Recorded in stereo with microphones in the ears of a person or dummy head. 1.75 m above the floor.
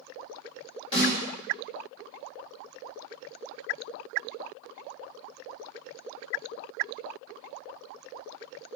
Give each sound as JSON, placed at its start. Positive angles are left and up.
{"t": 0.9, "sound": "a snare drum", "side_deg": 30, "distance_m": 3.0}